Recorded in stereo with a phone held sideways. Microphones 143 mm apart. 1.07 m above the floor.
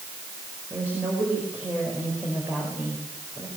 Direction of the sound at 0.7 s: 15° right (ahead or behind).